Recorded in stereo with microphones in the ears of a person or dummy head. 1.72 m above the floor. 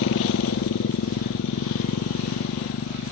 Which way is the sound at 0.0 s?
75° left (ahead or behind).